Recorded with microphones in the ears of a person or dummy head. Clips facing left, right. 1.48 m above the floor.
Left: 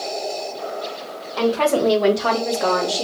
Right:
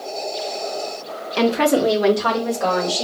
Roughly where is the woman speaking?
Right.